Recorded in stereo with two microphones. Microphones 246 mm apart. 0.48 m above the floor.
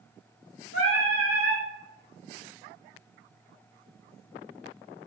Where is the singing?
65° left (ahead or behind), 1.1 m.